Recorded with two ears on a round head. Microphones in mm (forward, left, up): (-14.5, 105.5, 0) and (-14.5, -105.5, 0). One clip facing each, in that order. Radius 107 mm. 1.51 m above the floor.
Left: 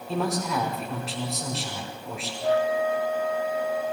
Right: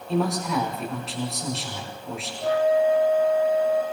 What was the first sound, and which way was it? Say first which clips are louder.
A man speaking: right 3 dB; centre (ahead or behind).